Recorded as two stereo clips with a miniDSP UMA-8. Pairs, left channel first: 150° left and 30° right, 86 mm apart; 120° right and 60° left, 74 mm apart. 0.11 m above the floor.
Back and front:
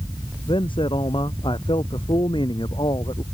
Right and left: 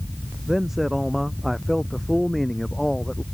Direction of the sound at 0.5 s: 145° left.